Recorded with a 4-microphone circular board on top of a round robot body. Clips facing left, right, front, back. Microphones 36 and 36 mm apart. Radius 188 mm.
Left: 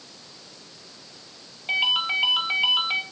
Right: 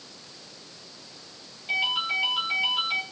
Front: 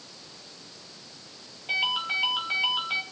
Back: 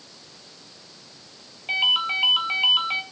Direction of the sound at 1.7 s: 145° left.